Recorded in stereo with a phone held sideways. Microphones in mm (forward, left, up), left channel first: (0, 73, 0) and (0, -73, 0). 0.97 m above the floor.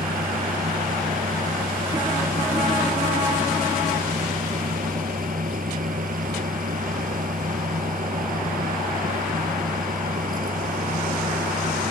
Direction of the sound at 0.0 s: 65° right (ahead or behind).